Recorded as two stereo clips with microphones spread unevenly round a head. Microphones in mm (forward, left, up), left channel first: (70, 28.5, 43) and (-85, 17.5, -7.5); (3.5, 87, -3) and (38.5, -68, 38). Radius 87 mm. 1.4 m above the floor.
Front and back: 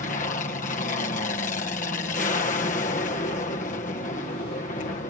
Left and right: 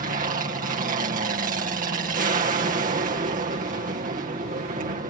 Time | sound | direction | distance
0.0 | an aircraft | 45° right | ?